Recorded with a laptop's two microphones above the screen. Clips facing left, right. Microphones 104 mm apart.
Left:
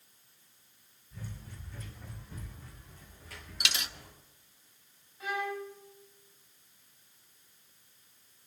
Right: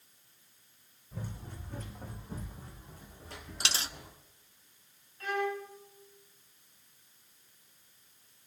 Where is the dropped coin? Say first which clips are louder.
Right 1 dB; 30° right (ahead or behind), 0.6 m.